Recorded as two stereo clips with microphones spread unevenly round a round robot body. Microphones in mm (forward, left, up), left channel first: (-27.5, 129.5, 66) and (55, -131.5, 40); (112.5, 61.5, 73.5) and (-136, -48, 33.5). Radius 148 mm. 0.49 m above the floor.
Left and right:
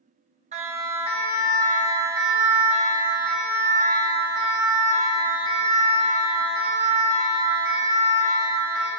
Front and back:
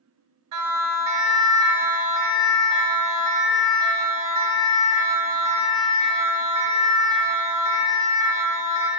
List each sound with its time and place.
0.5 s a siren: 135° right, 3.5 m; by 8.9 s 165° left, 5.5 m